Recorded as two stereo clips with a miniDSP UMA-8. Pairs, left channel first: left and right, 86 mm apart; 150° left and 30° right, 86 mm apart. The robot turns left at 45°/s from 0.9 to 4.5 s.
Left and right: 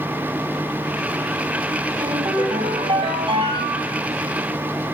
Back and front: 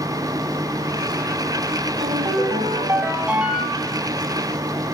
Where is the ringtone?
40° right, 6.5 m; by 4.0 s 130° right, 6.5 m.